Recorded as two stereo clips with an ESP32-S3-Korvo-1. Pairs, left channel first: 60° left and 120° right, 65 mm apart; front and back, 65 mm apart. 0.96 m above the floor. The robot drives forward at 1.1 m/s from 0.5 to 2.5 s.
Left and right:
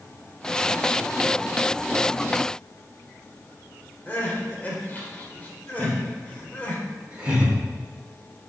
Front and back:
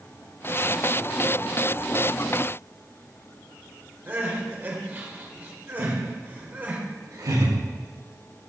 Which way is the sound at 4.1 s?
120° left.